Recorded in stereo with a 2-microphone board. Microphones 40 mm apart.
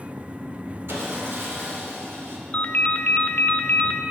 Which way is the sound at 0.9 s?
75° right (ahead or behind).